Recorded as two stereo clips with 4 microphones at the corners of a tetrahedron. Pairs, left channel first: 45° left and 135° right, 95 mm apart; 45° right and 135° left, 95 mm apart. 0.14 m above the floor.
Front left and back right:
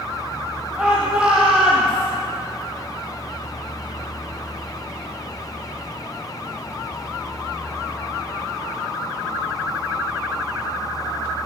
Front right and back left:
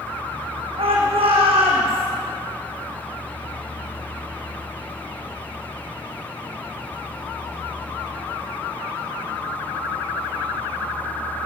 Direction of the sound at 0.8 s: 145° left.